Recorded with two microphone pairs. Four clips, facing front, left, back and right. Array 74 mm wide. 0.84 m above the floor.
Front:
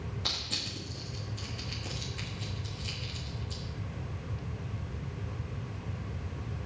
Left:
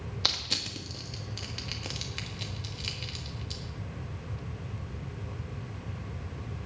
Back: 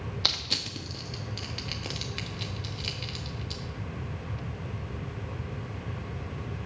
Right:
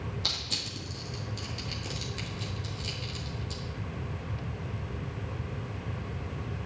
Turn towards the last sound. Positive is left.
turn(degrees=140)